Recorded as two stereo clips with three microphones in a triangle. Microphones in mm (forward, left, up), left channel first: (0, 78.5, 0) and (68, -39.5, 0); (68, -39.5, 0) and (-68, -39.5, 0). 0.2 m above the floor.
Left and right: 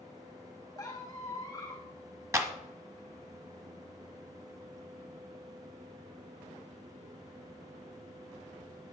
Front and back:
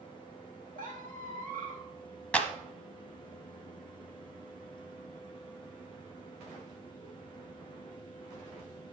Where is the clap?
65° right, 1.2 m.